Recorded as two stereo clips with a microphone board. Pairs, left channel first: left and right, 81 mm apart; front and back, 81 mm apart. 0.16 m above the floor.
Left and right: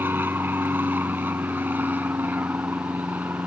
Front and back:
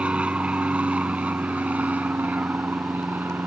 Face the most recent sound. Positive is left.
turn(degrees=-135)